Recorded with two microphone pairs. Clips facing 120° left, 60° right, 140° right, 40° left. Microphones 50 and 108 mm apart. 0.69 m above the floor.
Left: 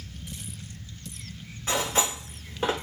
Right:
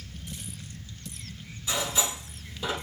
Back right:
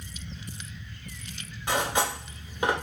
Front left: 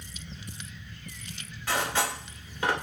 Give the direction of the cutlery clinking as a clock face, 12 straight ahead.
7 o'clock.